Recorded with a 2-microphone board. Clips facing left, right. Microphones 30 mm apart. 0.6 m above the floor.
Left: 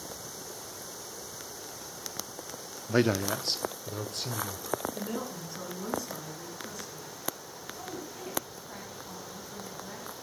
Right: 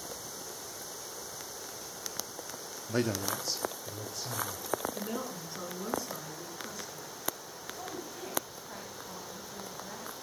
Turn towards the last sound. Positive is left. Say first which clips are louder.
# even
turn(degrees=-5)  # may be behind; listen again after turning